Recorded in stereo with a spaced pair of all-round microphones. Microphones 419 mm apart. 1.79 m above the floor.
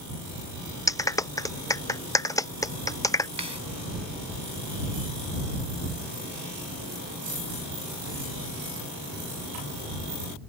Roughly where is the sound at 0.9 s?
Centre.